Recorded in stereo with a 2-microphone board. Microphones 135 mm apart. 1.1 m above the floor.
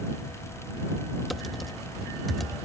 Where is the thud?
No thud in this recording.